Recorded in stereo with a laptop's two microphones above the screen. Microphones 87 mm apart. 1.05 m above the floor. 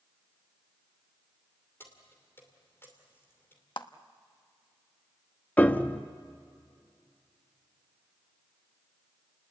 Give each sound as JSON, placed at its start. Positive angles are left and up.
{"t": 1.8, "sound": "keys jangling", "side_deg": 25, "distance_m": 2.5}
{"t": 3.8, "sound": "a clap", "side_deg": 65, "distance_m": 1.0}
{"t": 5.6, "sound": "a piano", "side_deg": 20, "distance_m": 0.9}